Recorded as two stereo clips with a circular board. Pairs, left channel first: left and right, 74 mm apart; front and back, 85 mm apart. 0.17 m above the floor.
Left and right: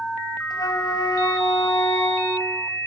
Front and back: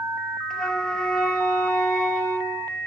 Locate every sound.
0.5 s a flute: 80° left, 0.7 m